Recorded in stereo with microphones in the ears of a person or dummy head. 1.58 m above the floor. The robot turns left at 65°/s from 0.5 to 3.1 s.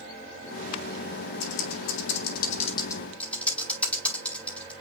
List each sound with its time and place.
1.4 s typing on a keyboard: 60° left (ahead or behind), 3.5 m; by 4.7 s 10° left (ahead or behind), 3.5 m